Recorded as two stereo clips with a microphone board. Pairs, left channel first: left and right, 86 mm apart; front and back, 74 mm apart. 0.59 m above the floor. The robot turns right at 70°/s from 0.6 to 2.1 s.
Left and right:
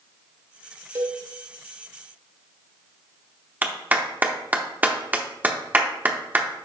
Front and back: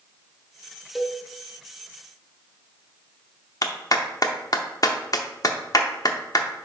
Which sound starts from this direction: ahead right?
A clap, at 3.6 s.